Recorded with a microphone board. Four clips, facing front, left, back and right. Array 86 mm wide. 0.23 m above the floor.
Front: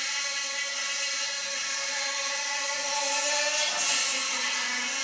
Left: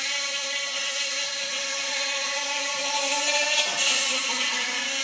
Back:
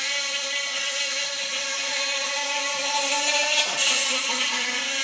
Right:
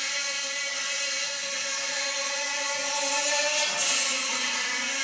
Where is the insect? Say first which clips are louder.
Left 2 dB, back 4 dB; 150° left, 1.6 m.